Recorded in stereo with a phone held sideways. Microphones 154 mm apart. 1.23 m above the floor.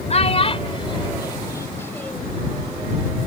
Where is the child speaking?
45° left (ahead or behind); by 2.4 s 5° left (ahead or behind).